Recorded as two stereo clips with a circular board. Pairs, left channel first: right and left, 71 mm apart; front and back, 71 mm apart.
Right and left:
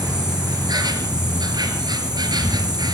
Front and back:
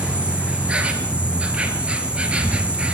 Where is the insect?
110° left, 2.5 m.